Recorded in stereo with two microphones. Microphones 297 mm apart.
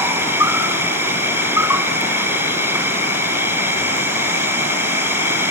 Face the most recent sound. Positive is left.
turn(degrees=-10)  # may be behind; listen again after turning